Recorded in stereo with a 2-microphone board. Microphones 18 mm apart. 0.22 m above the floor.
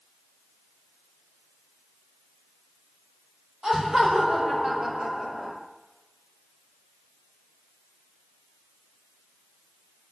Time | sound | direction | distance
3.6 | laughter | 25° right (ahead or behind) | 6.5 m